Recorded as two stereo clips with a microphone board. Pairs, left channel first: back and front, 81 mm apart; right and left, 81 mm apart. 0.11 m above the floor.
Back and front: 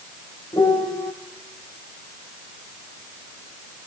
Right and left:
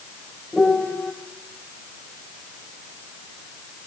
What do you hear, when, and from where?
0.5 s a piano: 175° right, 4 m